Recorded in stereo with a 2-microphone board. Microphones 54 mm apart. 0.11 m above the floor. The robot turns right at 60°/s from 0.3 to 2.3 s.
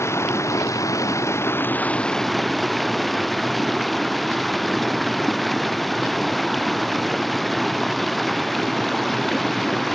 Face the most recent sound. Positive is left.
turn(degrees=180)